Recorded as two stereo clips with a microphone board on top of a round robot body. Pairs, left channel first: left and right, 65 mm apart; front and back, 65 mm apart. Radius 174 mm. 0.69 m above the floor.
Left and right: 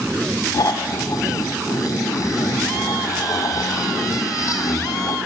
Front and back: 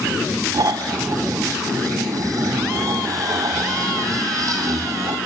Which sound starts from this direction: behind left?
Snoring, at 0.5 s.